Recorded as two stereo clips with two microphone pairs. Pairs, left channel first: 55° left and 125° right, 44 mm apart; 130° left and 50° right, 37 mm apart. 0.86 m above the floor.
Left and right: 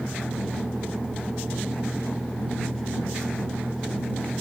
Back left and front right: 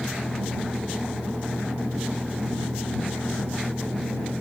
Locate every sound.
0.0 s a vehicle: 50° right